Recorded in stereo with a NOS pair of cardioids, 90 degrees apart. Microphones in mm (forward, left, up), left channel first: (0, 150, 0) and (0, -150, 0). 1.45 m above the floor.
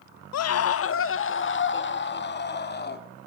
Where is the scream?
60° left, 1.1 m; by 3.1 s 35° left, 4 m.